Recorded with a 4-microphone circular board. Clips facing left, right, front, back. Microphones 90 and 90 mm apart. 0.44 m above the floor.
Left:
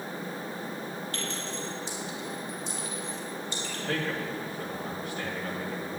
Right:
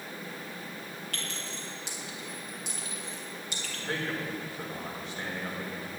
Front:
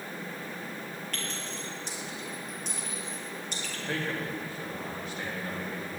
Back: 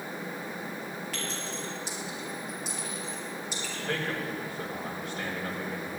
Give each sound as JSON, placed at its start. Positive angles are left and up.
{"t": 1.1, "sound": "a clink", "azimuth_deg": -95, "distance_m": 6.0}
{"t": 3.9, "sound": "a man speaking", "azimuth_deg": -150, "distance_m": 5.5}